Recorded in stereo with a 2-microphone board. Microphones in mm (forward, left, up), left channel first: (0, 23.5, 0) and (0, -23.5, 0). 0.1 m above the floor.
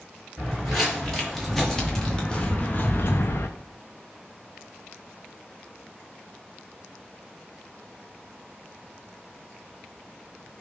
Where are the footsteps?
5° right (ahead or behind), 1.8 m; by 3.5 s 75° left (ahead or behind), 0.5 m.